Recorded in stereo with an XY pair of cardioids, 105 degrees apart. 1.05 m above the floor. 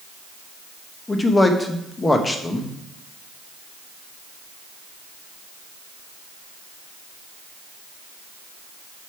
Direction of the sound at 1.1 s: 20° left.